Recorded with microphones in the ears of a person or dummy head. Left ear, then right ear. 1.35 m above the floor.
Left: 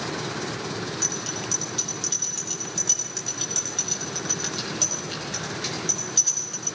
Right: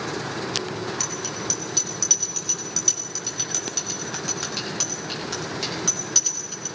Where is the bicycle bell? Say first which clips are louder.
Left 3 dB; 80° right, 9 m; by 6.7 s 75° right (ahead or behind), 12 m.